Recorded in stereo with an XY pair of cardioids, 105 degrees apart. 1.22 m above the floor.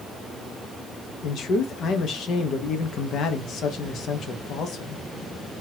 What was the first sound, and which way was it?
A man speaking, 65° left.